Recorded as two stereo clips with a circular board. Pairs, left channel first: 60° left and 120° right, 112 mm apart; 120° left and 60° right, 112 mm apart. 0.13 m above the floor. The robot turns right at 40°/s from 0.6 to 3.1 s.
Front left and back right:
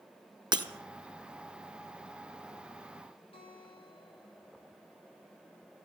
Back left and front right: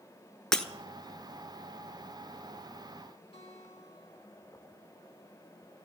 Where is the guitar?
90° left, 4.5 m.